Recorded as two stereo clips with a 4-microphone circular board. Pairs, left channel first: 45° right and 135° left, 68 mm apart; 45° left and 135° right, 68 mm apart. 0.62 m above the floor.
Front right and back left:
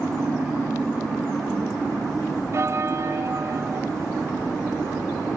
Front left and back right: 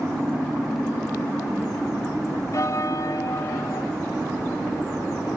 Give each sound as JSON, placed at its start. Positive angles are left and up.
{"t": 2.5, "sound": "a bell", "azimuth_deg": 85, "distance_m": 1.1}